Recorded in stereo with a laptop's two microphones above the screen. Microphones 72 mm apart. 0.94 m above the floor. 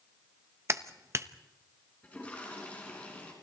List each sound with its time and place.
0.7 s a clap: 40° right (ahead or behind), 1.0 m
2.0 s a toilet flushing: 20° left (ahead or behind), 4.5 m